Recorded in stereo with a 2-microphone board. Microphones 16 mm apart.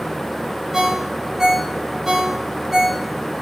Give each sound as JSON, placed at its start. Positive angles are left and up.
{"t": 0.7, "sound": "a ringtone", "side_deg": -35, "distance_m": 1.1}